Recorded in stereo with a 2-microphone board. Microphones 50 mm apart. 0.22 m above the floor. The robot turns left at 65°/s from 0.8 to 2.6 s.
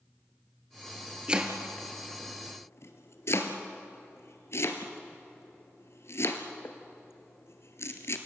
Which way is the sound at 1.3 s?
20° right (ahead or behind).